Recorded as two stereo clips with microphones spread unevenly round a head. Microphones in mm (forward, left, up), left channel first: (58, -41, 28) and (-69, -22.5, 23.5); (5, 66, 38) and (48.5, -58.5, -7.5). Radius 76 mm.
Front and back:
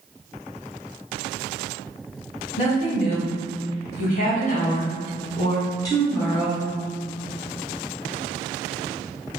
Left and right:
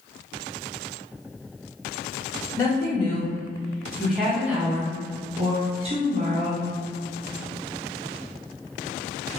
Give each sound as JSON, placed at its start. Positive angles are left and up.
{"t": 2.6, "sound": "a woman speaking", "azimuth_deg": 30, "distance_m": 1.9}